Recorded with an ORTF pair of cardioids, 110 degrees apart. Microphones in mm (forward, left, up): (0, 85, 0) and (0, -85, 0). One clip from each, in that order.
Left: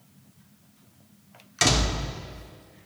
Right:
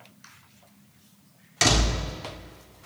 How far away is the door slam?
About 1.9 m.